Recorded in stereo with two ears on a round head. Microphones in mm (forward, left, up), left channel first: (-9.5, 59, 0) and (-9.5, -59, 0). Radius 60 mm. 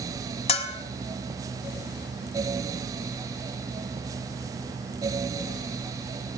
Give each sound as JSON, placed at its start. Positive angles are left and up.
{"t": 0.5, "sound": "a bell", "side_deg": 45, "distance_m": 1.2}